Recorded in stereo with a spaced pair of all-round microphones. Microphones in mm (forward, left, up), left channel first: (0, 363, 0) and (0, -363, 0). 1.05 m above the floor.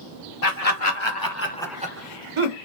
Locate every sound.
0.4 s laughter: 60° left (ahead or behind), 1.1 m; by 2.5 s 50° right (ahead or behind), 0.8 m